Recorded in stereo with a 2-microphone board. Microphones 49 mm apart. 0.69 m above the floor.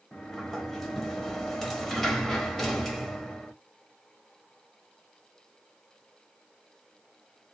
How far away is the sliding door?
About 1.0 m.